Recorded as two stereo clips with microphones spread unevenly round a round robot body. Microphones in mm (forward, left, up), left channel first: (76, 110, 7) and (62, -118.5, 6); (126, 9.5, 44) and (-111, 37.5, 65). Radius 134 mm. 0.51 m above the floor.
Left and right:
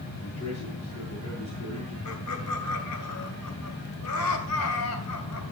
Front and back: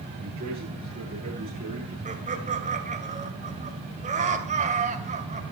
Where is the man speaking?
110° left, 9 m.